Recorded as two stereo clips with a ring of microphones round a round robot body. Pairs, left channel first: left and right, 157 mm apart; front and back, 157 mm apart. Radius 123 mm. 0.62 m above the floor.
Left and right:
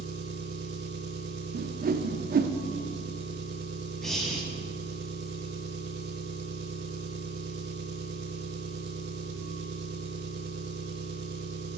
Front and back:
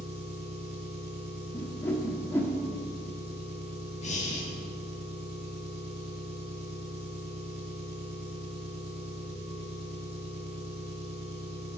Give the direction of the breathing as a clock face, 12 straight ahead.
12 o'clock.